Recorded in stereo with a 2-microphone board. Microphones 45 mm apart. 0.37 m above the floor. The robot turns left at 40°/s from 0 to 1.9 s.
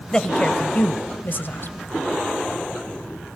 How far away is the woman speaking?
About 1.4 m.